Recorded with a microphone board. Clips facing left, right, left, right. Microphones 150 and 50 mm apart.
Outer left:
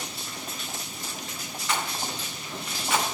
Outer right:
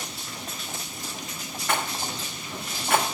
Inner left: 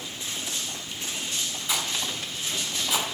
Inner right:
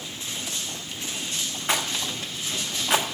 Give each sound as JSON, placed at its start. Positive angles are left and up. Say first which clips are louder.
{"t": 1.7, "sound": "a rattle", "louder": "outer right 2 dB, inner right 3 dB", "side_deg": -55, "distance_m": 1.2}